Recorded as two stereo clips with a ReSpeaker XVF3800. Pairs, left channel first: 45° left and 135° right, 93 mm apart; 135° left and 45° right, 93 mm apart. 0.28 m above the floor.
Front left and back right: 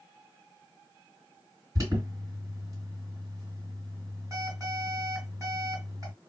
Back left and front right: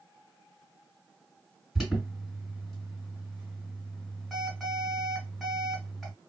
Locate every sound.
1.8 s an alarm: 130° right, 2 m